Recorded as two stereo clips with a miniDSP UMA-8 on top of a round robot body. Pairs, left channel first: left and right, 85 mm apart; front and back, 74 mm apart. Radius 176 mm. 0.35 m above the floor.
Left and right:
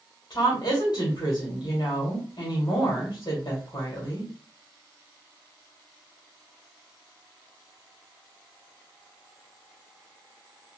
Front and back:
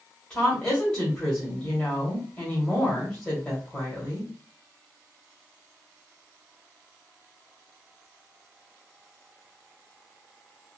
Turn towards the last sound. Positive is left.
turn(degrees=60)